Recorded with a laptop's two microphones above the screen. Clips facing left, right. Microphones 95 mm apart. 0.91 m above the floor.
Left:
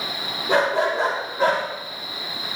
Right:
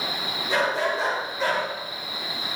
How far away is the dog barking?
About 7 m.